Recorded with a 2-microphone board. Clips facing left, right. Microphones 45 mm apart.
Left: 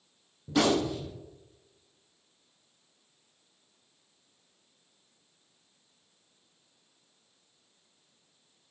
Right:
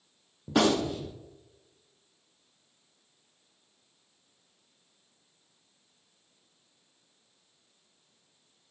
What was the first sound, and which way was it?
A gunshot, 55° right (ahead or behind).